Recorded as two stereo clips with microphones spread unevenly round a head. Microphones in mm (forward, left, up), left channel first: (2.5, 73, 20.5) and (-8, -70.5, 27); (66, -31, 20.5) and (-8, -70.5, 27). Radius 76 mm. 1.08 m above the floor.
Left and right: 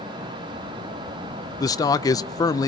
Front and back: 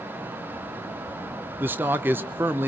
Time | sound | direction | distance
1.6 | a man speaking | 140° left | 0.9 m